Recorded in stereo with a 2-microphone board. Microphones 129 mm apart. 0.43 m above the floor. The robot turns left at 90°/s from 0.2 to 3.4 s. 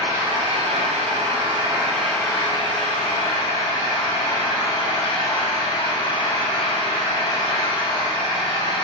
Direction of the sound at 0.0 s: 25° right.